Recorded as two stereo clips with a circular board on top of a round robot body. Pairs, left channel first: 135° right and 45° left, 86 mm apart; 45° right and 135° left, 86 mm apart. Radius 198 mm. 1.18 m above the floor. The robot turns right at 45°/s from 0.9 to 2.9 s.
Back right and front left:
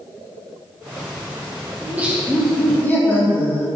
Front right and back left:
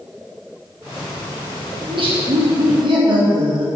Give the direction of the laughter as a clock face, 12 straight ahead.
8 o'clock.